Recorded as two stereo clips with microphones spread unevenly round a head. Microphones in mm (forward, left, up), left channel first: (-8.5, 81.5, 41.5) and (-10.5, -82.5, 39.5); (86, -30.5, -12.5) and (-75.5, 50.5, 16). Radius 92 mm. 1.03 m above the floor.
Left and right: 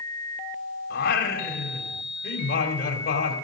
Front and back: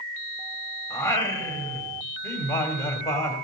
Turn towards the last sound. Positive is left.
turn(degrees=50)